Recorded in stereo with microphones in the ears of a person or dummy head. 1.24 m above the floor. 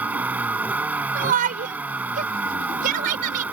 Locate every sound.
0.0 s a vehicle: 10° right (ahead or behind)
1.1 s a shout: 45° right (ahead or behind)